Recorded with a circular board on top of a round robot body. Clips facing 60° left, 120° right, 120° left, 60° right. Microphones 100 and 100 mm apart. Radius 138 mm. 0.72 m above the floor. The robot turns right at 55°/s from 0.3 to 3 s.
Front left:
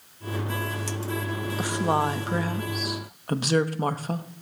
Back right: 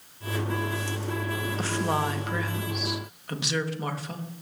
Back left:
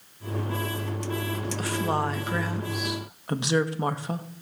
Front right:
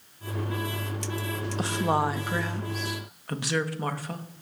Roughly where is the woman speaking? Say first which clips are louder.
Front left 4 dB, front right 2 dB; ahead.